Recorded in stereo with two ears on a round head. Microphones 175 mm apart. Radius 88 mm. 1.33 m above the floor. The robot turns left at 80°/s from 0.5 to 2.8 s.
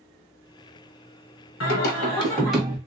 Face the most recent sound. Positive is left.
turn(degrees=-25)